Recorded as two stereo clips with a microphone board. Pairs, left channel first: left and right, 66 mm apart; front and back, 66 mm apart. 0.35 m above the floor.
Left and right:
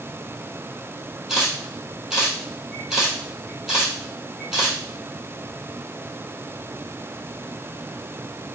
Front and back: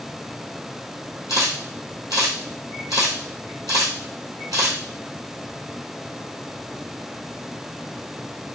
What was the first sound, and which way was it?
A camera shutter, 170° right.